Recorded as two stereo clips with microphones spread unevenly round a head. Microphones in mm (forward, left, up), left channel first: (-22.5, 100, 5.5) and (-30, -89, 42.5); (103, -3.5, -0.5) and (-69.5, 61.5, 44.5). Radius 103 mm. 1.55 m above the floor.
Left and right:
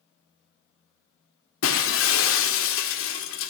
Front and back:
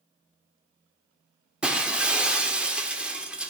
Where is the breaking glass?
85° left, 1.6 m.